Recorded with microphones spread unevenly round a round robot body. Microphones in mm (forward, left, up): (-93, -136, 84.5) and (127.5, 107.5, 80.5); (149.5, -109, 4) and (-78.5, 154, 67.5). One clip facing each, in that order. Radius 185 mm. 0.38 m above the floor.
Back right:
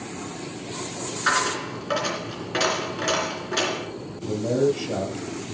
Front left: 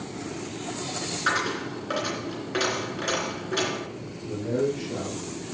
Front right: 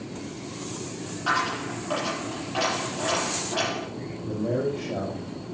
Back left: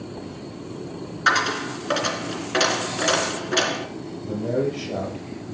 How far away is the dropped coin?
About 3 m.